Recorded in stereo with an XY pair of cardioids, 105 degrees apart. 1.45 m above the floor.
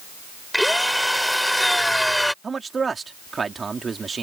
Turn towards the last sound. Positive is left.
turn(degrees=-35)